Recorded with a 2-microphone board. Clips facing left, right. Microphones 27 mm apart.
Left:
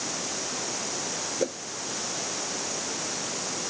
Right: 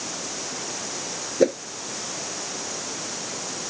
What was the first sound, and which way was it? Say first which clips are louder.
A whoosh: right 11 dB; 25° right (ahead or behind).